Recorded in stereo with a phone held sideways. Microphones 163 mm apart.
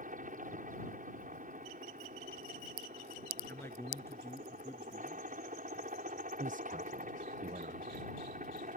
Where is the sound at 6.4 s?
50° right (ahead or behind).